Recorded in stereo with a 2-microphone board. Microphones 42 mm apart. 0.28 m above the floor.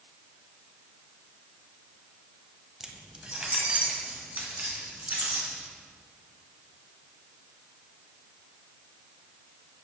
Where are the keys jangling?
15° right (ahead or behind), 0.9 m; by 5.6 s 45° right (ahead or behind), 2.5 m.